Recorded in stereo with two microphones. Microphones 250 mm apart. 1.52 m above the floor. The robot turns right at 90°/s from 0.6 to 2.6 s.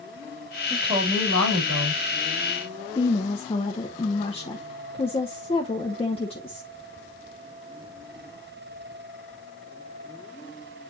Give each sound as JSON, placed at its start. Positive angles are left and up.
{"t": 0.7, "sound": "a woman speaking", "azimuth_deg": -175, "distance_m": 4.5}
{"t": 3.0, "sound": "a woman speaking", "side_deg": 25, "distance_m": 1.0}